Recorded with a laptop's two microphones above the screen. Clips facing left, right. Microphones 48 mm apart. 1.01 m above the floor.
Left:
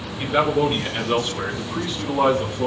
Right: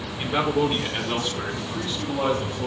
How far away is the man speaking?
About 3 m.